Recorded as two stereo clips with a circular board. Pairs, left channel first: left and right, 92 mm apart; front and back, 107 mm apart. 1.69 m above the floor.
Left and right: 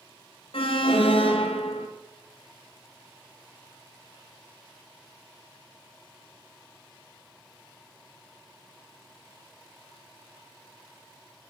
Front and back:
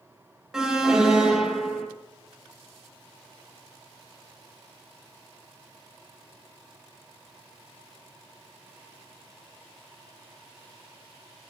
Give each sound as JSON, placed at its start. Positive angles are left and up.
{"t": 0.5, "sound": "an alarm", "azimuth_deg": 95, "distance_m": 2.5}